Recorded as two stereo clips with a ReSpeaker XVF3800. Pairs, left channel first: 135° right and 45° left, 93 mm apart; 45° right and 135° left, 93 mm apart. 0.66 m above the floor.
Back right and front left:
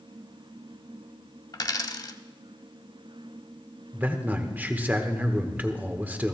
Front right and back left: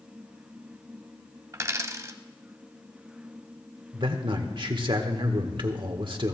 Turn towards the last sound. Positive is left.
turn(degrees=115)